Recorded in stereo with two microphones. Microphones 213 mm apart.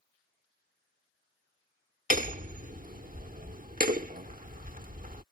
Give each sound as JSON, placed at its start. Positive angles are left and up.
{"t": 2.1, "sound": "hammering", "side_deg": -40}